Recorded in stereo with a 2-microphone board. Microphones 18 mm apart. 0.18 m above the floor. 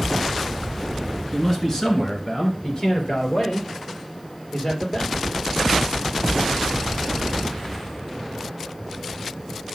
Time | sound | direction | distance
1.3 | a man speaking | 20° left (ahead or behind) | 2 m